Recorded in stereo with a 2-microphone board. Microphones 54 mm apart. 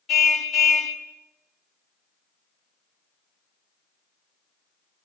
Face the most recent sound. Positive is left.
turn(degrees=0)  # may be behind; listen again after turning